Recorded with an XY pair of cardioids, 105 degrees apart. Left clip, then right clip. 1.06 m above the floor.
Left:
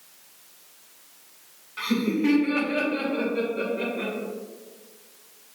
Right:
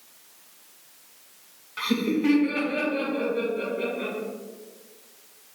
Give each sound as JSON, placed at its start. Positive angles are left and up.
{"t": 1.8, "sound": "laughter", "azimuth_deg": -25, "distance_m": 1.0}